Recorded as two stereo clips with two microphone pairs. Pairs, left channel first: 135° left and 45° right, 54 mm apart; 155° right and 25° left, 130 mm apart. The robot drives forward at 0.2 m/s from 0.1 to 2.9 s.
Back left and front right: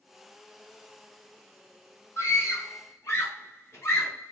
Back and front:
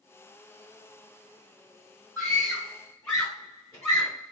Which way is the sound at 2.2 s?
130° left.